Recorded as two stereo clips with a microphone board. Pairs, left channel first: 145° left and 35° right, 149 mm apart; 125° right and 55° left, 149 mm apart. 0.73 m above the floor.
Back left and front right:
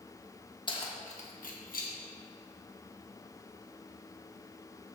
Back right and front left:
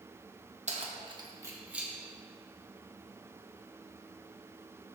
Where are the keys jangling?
90° left, 0.8 m; by 1.9 s 140° left, 1.2 m.